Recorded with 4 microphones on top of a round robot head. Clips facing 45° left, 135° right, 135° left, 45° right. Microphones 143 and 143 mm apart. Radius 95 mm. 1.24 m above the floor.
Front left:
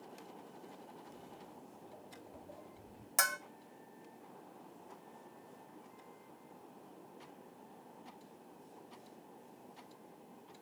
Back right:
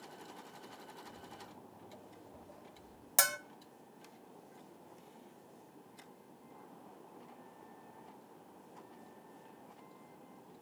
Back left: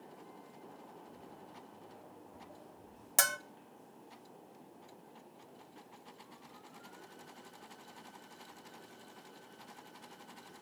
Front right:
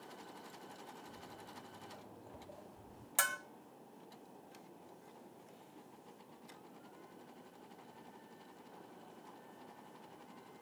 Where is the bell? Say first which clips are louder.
Back right 1 dB, back left 4 dB; 170° left, 0.7 m.